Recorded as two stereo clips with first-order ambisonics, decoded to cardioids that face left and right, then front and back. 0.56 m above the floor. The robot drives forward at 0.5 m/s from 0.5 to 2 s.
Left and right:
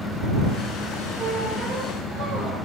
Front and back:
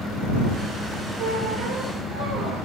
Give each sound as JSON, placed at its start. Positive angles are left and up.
{"t": 1.2, "sound": "a squeak", "azimuth_deg": -170, "distance_m": 2.5}